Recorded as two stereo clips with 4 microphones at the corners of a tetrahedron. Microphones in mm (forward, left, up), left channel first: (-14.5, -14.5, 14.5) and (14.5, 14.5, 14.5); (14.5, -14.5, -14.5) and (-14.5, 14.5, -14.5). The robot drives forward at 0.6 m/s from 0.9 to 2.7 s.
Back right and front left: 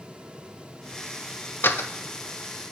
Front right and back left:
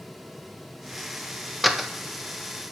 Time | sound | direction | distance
1.6 | a door slam | 135° right | 0.6 m